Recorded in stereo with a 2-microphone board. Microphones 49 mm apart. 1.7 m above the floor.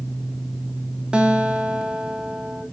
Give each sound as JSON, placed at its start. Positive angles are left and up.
{"t": 1.1, "sound": "a guitar", "side_deg": -15, "distance_m": 1.8}